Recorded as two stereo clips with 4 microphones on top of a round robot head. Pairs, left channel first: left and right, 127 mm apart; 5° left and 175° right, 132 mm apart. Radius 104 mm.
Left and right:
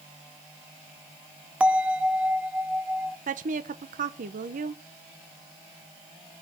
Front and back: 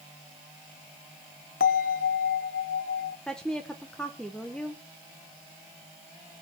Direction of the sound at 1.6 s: 10° right.